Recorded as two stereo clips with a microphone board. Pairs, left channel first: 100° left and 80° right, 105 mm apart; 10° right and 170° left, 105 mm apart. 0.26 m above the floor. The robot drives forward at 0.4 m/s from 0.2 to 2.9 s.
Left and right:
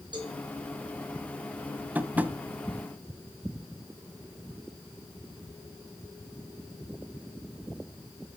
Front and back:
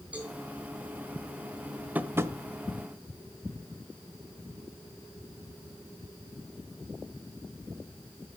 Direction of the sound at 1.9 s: 130° right.